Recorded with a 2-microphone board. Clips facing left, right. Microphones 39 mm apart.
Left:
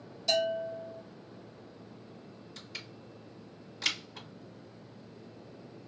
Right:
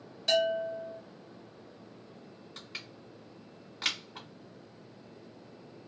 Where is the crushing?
35° right (ahead or behind), 2 m.